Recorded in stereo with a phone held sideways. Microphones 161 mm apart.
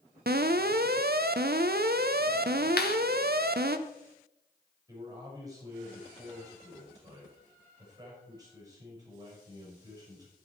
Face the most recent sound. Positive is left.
turn(degrees=-30)  # may be behind; listen again after turning